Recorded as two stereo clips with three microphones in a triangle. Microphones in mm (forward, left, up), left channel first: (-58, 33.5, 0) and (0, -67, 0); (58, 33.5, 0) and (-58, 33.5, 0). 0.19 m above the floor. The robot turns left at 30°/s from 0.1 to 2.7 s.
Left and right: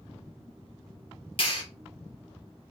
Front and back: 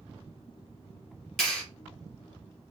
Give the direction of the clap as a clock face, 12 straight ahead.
9 o'clock.